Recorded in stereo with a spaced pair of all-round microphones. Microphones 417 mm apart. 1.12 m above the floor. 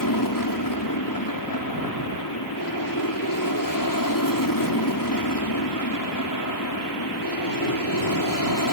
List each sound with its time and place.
0.0 s an aircraft: 50° left (ahead or behind)